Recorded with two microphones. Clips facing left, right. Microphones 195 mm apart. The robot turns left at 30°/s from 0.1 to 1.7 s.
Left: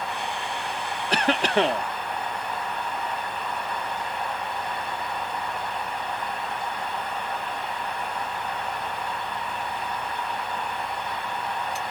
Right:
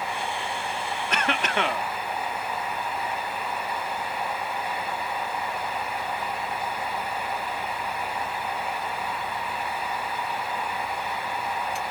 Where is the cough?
30° left (ahead or behind), 0.7 m.